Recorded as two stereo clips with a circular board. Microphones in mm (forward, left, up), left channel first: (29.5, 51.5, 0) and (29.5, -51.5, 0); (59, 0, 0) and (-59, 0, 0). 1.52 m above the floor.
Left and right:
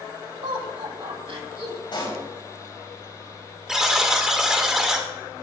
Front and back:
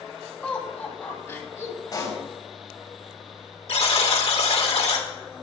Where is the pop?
55° left, 4.5 m.